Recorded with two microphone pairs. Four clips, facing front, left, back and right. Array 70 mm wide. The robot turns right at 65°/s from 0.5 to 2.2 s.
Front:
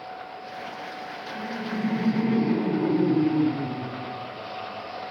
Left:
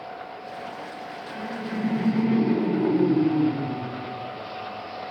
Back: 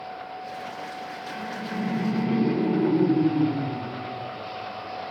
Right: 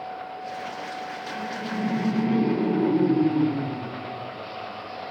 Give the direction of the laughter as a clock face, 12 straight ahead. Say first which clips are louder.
Even, front 2 dB; 2 o'clock.